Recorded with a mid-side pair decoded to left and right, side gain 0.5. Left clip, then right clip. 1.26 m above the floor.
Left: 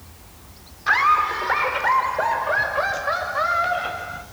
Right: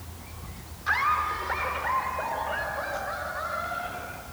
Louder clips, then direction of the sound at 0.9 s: Left 7 dB; 45° left.